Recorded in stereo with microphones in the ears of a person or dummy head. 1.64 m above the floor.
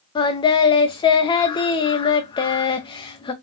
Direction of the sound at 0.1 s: 25° left (ahead or behind).